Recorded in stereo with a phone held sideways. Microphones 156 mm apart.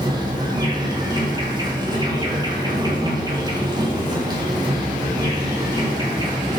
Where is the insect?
25° right (ahead or behind), 1.7 m.